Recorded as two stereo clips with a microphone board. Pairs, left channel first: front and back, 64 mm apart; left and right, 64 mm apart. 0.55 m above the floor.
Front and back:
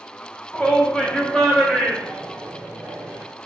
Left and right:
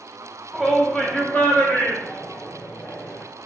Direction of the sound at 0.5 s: 5° right.